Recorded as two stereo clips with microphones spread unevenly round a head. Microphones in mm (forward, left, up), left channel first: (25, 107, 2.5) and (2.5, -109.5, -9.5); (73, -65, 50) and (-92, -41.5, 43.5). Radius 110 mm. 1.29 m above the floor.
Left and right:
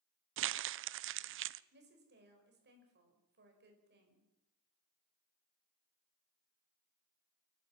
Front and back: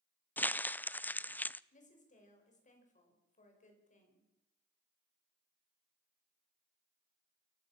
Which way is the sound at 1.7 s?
50° right.